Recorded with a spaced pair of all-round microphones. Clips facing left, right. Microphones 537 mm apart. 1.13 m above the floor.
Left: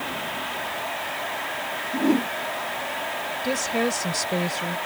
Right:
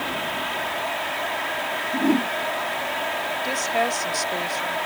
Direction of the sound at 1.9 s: 10° right (ahead or behind).